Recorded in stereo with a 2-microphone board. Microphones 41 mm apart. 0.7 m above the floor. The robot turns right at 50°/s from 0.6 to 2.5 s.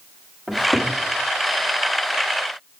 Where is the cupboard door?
Centre (ahead or behind), 1.2 m; by 0.9 s 15° left (ahead or behind), 1.2 m.